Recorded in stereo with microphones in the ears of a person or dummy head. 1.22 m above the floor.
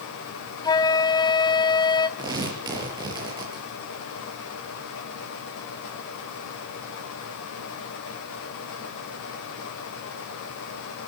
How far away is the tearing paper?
About 6.5 m.